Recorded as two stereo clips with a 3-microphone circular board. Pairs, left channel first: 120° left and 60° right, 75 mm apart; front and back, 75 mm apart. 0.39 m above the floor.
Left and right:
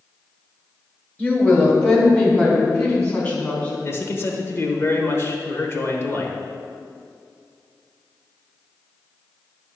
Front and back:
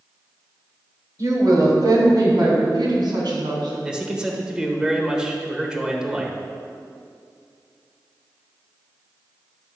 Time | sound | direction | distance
1.2 | a woman speaking | straight behind | 1.8 m
3.8 | a man speaking | 110° left | 1.1 m